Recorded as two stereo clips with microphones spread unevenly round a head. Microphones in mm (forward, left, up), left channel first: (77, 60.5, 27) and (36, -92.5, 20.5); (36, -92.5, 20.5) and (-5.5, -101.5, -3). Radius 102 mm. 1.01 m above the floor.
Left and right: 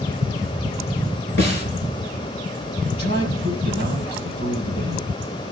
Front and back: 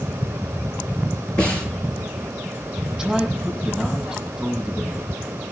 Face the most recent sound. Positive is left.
turn(degrees=105)